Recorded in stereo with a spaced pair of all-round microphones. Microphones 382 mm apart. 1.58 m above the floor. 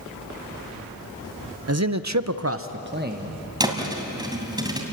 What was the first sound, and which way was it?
A man speaking, 45° right (ahead or behind).